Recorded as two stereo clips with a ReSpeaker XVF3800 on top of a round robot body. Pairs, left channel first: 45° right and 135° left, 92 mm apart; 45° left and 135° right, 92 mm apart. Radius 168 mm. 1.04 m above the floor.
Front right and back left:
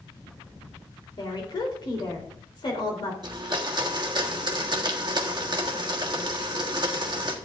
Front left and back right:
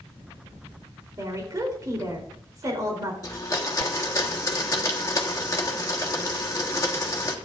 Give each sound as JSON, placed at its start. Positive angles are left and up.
{"t": 1.2, "sound": "a woman speaking", "azimuth_deg": -85, "distance_m": 3.5}
{"t": 3.2, "sound": "a blender", "azimuth_deg": 95, "distance_m": 1.6}